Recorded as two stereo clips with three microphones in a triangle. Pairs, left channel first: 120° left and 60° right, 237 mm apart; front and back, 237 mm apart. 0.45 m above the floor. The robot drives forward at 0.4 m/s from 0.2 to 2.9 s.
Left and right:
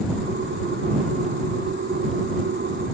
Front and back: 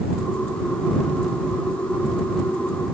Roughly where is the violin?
No violin in this recording.